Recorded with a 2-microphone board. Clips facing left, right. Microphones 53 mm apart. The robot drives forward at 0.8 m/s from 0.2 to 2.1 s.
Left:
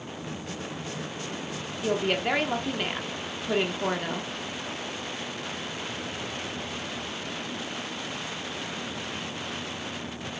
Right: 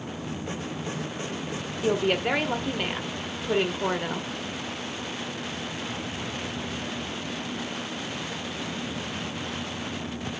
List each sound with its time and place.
1.8 s a woman speaking: 5° right (ahead or behind), 0.8 m; by 4.3 s centre (ahead or behind), 0.9 m